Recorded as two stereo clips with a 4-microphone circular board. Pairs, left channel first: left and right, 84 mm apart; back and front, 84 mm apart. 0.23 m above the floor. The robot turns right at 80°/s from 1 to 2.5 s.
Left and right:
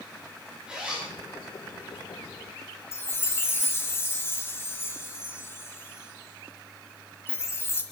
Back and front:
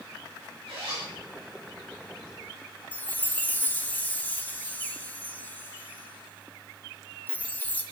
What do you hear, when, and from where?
0.7 s a zipper: 10° right, 5.5 m; by 1.1 s 5° right, 5.5 m
2.9 s a chime: 125° left, 1.8 m